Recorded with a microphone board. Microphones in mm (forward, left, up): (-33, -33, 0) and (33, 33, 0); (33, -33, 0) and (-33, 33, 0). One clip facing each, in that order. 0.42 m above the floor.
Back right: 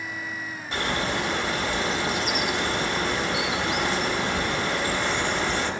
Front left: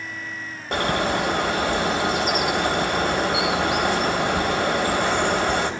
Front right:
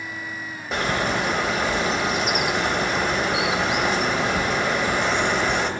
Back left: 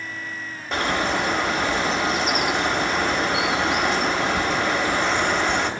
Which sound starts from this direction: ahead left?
A bird, at 0.7 s.